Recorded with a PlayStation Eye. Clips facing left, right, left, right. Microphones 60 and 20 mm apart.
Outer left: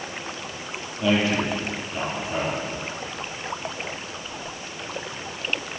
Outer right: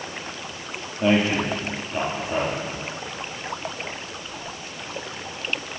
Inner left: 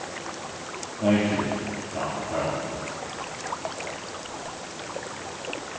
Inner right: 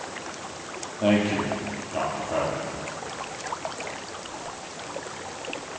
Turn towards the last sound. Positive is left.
turn(degrees=-25)  # may be behind; listen again after turning